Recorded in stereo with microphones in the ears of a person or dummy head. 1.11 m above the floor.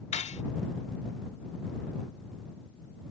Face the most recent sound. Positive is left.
turn(degrees=35)  # may be behind; listen again after turning